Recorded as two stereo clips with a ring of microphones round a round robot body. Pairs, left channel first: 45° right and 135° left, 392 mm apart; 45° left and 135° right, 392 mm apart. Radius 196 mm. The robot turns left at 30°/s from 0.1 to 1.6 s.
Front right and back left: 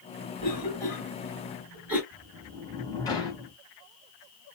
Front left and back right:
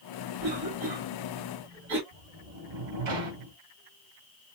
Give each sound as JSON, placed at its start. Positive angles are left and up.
{"t": 0.4, "sound": "a cough", "azimuth_deg": -115, "distance_m": 2.0}
{"t": 2.1, "sound": "a sliding door", "azimuth_deg": -125, "distance_m": 1.9}